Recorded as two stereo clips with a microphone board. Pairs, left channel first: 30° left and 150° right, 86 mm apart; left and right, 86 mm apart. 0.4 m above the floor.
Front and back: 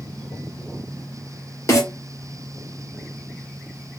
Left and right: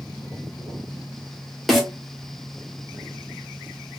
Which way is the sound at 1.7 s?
Straight ahead.